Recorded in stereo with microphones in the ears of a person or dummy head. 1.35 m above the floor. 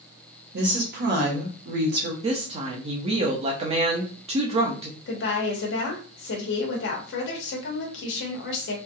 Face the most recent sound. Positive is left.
turn(degrees=65)  # may be behind; listen again after turning